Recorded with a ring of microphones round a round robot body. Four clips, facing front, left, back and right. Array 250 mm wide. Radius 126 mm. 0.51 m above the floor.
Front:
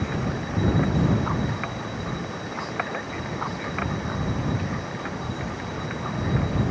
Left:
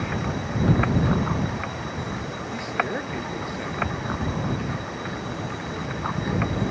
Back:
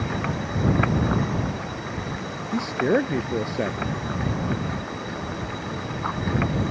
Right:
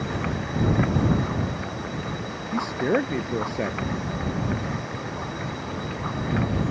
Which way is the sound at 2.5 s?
145° right.